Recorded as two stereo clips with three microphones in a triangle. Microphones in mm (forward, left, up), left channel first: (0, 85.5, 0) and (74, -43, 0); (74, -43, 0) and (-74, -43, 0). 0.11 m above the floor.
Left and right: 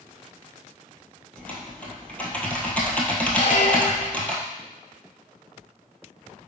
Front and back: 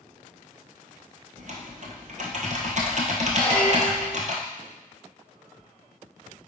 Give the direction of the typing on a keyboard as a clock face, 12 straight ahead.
5 o'clock.